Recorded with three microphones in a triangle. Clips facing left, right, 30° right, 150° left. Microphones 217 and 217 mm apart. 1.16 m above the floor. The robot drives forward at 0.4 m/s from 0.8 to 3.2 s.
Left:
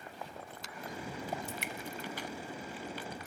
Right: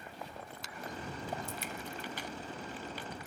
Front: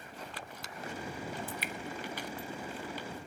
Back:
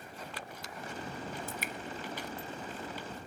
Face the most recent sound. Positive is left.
turn(degrees=140)